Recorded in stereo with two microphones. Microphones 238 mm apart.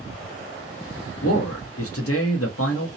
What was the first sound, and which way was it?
A man speaking, 70° left (ahead or behind).